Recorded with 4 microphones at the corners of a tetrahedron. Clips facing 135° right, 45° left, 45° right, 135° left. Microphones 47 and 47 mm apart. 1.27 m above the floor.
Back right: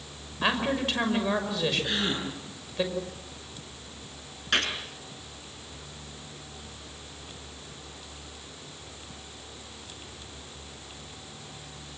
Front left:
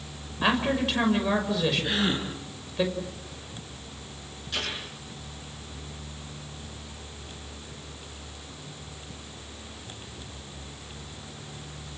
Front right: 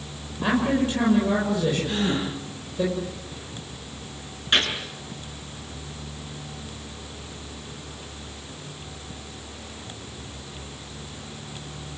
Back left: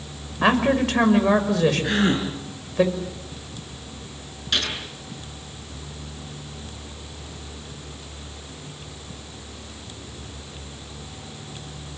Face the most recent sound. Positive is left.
turn(degrees=-105)